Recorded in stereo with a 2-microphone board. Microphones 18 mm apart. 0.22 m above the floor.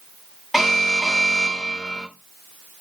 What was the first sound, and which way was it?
An alarm, 20° right (ahead or behind).